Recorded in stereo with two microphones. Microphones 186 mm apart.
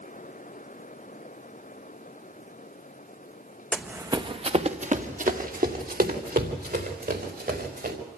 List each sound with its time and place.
3.7 s running footsteps: 5° left (ahead or behind), 0.8 m; by 8.0 s 60° right (ahead or behind), 5 m